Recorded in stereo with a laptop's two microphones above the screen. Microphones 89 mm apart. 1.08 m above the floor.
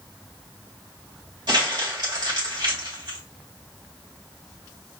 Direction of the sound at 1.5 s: 55° right (ahead or behind).